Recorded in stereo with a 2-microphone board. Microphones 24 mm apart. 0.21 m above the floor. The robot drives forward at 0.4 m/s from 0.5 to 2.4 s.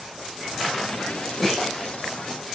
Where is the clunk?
10° left (ahead or behind), 6.5 m.